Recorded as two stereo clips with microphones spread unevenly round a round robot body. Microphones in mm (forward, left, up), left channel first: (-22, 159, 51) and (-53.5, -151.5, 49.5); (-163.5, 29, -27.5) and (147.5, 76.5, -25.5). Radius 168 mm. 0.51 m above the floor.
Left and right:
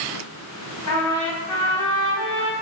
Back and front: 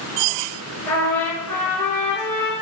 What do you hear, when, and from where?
0.9 s a trumpet: 105° left, 1.9 m